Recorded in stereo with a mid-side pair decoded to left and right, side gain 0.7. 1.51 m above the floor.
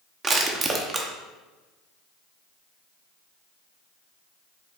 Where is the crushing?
25° right, 0.7 m.